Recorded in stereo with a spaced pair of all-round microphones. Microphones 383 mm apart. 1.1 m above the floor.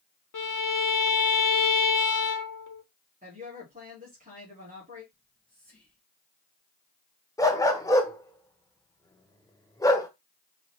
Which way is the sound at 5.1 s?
5° left (ahead or behind).